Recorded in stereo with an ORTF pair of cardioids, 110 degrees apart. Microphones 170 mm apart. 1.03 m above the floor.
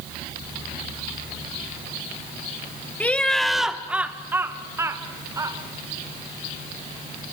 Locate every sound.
3.0 s laughter: 10° left, 1.7 m; by 5.6 s 20° right, 3.5 m